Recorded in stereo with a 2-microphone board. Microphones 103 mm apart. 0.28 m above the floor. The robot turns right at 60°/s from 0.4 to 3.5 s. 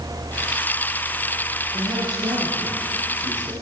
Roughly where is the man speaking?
Behind right.